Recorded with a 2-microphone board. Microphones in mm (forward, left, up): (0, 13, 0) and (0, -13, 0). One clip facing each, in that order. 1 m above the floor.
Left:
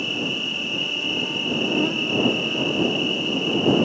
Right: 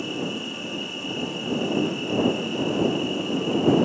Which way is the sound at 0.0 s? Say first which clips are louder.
Left 5 dB; 40° left (ahead or behind).